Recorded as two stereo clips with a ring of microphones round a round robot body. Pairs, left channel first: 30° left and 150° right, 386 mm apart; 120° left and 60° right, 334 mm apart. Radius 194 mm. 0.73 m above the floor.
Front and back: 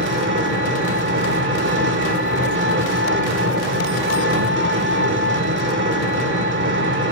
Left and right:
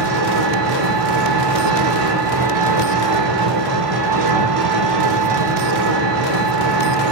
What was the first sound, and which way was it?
An engine running, 90° right.